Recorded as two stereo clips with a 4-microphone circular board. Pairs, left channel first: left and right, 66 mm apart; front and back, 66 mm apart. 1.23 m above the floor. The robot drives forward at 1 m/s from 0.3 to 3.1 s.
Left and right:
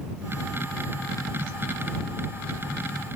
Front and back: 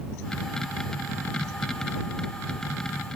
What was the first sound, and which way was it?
Only background noise.